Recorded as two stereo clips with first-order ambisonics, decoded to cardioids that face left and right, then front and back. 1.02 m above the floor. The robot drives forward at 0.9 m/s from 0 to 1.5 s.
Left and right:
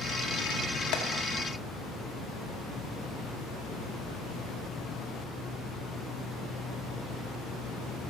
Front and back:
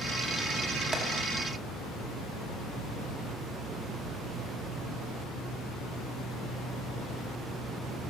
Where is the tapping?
100° left, 1.0 m; by 1.0 s 105° left, 1.0 m.